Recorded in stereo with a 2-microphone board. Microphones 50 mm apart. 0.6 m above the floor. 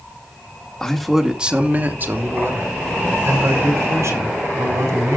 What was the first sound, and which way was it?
A man speaking, 15° left (ahead or behind).